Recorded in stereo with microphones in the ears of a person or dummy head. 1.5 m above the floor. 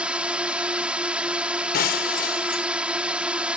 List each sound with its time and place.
0.0 s a drone: 5° right (ahead or behind)
1.7 s breaking glass: 60° left (ahead or behind)